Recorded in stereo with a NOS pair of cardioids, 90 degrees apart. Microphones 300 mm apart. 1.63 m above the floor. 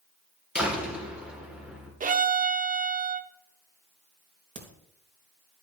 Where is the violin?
25° right, 0.9 m.